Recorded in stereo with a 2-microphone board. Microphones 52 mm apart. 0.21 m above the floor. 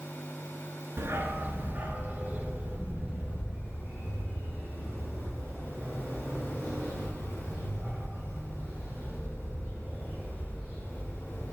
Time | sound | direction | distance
1.0 | a dog barking | 50° right (ahead or behind) | 1.1 m